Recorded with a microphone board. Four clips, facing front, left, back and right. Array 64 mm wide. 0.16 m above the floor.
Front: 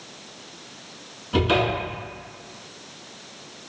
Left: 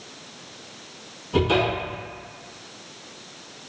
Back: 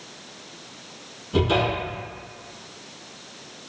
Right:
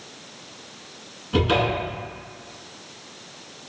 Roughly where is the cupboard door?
Ahead right.